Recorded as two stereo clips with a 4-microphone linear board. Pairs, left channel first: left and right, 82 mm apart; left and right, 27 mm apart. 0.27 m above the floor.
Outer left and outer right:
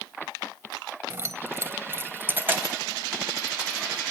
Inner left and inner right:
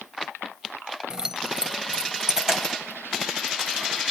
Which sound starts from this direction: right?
Keys jangling, at 1.1 s.